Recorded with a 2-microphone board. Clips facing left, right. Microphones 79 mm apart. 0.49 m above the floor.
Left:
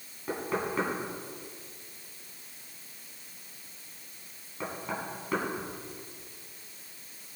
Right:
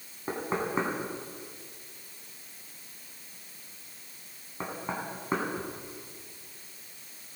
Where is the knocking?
30° right (ahead or behind), 2.5 m.